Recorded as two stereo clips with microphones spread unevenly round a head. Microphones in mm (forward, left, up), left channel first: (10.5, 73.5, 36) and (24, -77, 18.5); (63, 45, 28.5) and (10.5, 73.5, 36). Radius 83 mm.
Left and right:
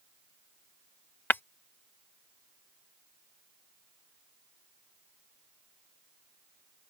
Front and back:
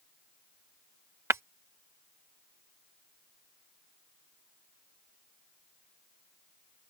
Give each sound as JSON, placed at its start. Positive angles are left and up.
{"t": 1.3, "sound": "breaking glass", "azimuth_deg": 165}